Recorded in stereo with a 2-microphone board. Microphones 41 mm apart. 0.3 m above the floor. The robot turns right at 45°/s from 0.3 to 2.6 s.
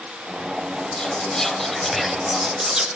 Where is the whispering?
145° left, 1.1 m; by 2.9 s 145° right, 1.1 m.